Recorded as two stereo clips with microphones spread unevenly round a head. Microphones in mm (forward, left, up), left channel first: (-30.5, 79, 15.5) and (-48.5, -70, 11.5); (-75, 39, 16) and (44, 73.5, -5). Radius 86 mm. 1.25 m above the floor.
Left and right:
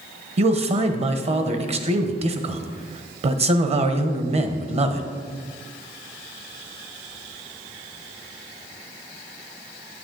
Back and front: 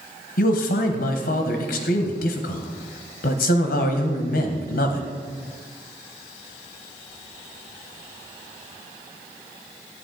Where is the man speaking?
140° right, 0.9 m.